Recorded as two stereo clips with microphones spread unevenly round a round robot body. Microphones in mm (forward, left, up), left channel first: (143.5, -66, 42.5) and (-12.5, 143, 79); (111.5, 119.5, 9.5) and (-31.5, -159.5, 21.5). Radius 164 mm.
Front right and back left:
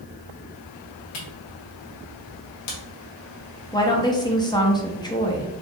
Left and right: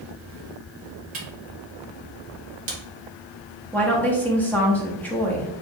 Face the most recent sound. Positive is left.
turn(degrees=-15)